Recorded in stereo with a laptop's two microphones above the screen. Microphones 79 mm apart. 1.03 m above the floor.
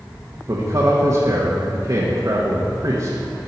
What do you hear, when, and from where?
0.5 s a man speaking: 50° right (ahead or behind), 1.2 m